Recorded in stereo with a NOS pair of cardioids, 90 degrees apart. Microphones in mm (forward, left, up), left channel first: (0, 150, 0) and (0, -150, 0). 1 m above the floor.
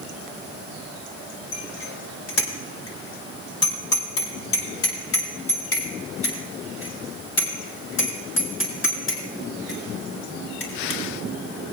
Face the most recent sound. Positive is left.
turn(degrees=40)